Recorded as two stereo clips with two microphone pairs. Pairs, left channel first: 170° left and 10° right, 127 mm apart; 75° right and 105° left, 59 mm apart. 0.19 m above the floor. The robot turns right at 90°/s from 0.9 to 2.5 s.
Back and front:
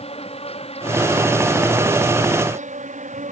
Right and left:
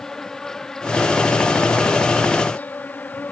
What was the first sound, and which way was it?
An insect, 160° right.